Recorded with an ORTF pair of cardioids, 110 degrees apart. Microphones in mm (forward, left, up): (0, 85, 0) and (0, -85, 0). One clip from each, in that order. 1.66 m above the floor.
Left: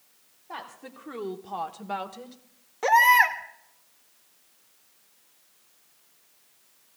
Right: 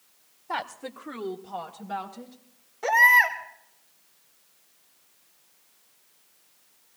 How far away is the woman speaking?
About 1.3 m.